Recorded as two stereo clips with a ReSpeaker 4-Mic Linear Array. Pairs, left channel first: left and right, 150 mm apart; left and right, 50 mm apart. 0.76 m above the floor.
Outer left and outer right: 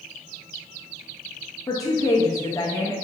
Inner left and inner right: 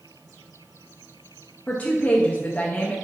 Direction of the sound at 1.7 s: 25° left (ahead or behind).